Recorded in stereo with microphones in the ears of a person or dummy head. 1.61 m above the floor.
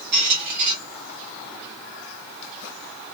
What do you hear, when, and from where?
0.1 s a squeak: 50° right (ahead or behind), 1.8 m